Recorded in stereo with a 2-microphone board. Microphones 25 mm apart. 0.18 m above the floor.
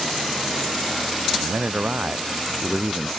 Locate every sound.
1.3 s a man speaking: 80° right